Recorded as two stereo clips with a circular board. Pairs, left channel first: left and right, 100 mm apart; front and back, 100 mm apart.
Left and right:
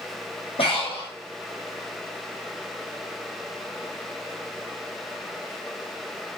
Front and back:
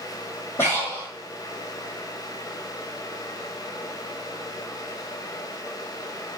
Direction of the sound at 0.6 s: 70° left.